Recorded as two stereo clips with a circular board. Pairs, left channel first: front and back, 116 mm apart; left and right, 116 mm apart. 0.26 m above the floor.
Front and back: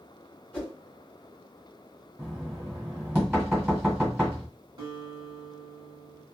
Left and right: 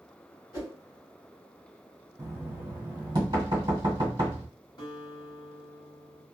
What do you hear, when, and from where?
0.5 s a whoosh: 65° left, 1.9 m
2.2 s knocking: 105° right, 1.6 m
4.8 s a guitar: 135° left, 1.1 m